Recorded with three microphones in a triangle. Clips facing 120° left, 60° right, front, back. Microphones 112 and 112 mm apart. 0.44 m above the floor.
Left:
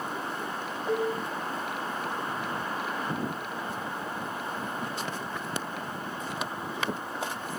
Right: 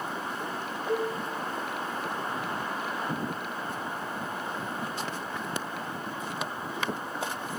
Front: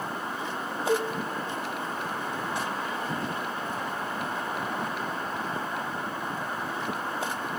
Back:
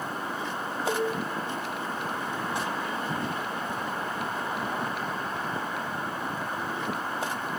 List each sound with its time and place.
0.9 s a cowbell: straight behind, 0.7 m